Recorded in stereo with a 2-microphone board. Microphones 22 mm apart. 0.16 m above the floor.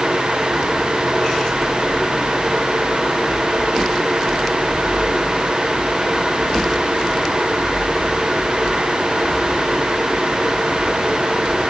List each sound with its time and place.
Only background noise.